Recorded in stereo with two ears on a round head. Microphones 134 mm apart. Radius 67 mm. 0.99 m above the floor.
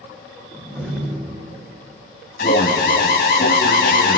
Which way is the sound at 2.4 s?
65° left (ahead or behind).